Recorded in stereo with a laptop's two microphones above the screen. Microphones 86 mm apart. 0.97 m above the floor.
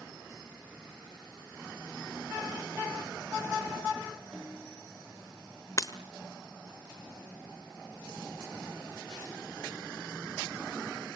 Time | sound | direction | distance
4.3 | a snare drum | 5° right (ahead or behind) | 4 m
5.8 | breaking glass | 40° left (ahead or behind) | 1.4 m